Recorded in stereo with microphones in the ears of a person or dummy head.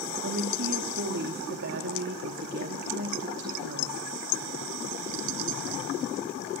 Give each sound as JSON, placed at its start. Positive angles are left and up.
{"t": 0.2, "sound": "a woman speaking", "side_deg": -70, "distance_m": 2.0}